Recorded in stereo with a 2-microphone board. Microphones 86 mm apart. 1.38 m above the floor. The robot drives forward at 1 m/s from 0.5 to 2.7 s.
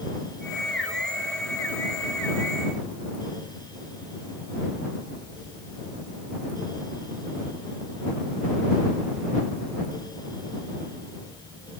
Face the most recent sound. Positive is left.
No sound to turn to.